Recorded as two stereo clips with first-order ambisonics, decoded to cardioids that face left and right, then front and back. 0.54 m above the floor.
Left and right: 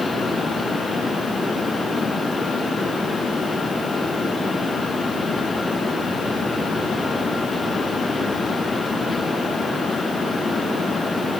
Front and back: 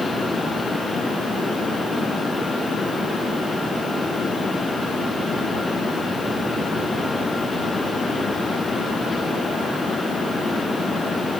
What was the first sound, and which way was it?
Only background noise.